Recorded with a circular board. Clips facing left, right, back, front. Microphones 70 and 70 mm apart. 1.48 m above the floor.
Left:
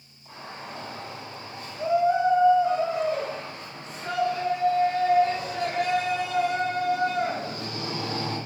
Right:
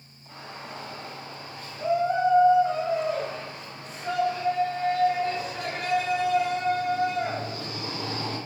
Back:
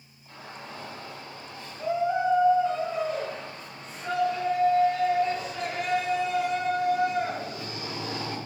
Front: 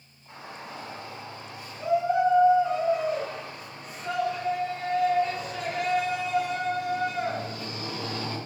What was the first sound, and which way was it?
A shout, 75° left.